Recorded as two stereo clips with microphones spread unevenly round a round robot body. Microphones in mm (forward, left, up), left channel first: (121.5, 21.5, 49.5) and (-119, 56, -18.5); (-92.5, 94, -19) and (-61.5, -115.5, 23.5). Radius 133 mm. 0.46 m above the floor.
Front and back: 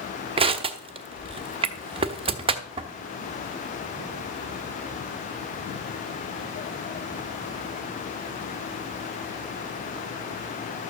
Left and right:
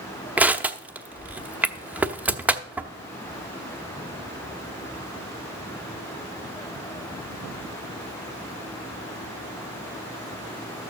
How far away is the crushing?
About 0.9 m.